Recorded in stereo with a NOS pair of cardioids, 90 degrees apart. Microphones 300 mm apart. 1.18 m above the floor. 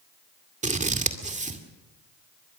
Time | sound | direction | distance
0.6 | scissors | 25° right | 2 m